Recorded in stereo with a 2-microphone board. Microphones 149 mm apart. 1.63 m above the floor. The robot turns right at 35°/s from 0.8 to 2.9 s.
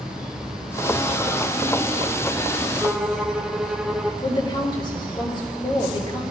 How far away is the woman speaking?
About 4 m.